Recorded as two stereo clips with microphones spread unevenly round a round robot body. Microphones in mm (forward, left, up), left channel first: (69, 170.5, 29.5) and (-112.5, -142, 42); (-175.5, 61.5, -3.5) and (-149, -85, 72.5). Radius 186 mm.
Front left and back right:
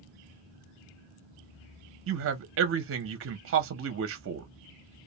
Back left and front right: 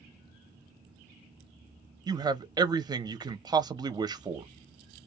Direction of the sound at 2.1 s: 170° right.